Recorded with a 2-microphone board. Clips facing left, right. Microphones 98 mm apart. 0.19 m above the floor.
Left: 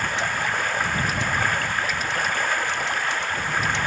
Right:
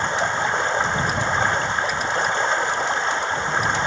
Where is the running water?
25° right (ahead or behind).